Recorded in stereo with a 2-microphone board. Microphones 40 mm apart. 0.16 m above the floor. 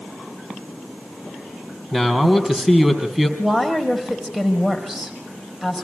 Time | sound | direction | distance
1.9 | a man speaking | 5° right (ahead or behind) | 4 m
3.4 | a woman speaking | 15° right (ahead or behind) | 5 m